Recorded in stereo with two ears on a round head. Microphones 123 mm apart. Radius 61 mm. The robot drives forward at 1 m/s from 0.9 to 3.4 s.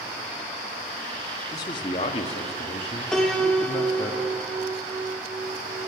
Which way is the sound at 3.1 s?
5° left (ahead or behind).